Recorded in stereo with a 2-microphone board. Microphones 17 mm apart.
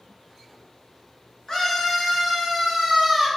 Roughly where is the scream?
Left.